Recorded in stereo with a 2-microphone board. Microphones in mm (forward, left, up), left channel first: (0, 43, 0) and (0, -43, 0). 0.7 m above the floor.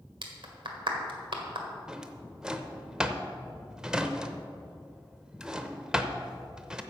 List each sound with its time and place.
0.2 s a clap: 70° right (ahead or behind), 1.7 m
1.9 s a drawer: 10° right (ahead or behind), 0.7 m